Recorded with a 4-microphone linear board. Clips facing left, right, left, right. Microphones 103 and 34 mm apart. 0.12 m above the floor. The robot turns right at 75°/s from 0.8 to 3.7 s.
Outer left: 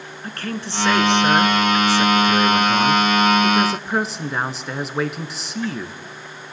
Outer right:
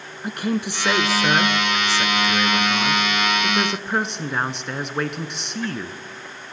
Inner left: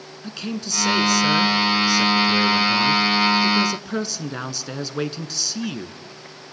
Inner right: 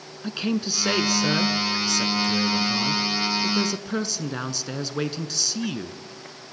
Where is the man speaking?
15° right (ahead or behind), 1.1 m; by 6.0 s centre (ahead or behind), 1.1 m.